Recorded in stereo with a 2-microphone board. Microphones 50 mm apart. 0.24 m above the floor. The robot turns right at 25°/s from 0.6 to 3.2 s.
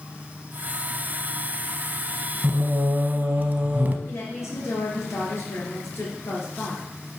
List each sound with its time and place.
2.4 s singing: 45° right (ahead or behind), 0.8 m; by 4.0 s 35° right (ahead or behind), 0.8 m
4.1 s a woman speaking: 65° left (ahead or behind), 4 m